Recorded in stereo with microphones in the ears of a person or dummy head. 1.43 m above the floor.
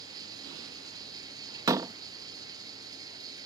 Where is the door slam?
15° right (ahead or behind).